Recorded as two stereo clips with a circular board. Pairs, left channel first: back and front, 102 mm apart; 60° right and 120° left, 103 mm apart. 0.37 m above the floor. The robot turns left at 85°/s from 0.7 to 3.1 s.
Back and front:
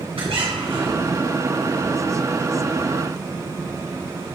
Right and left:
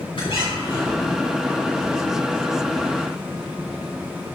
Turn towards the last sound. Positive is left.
turn(degrees=130)